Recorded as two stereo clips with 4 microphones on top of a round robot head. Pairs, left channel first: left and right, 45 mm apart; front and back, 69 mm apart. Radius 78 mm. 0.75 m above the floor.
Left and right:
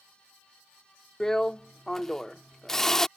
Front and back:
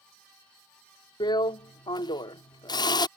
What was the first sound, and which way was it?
A drill, 10° left.